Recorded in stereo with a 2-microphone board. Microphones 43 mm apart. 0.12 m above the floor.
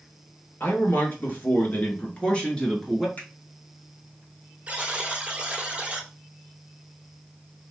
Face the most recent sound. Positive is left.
turn(degrees=-30)  # may be behind; listen again after turning